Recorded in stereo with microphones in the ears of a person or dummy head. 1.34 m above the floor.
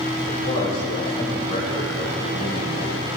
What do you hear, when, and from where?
0.3 s a man speaking: 40° left (ahead or behind), 5.5 m